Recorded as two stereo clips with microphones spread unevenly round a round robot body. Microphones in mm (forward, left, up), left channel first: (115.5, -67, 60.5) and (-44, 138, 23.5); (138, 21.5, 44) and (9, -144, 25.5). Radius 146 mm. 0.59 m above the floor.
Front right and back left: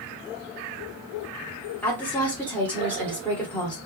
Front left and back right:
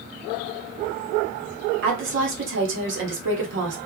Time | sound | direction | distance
1.8 | a woman speaking | 140° right | 1.3 m